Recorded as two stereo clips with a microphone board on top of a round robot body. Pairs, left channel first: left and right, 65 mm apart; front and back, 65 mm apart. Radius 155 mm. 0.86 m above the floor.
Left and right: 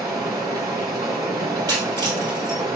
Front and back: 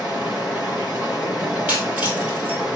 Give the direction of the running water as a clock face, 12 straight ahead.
4 o'clock.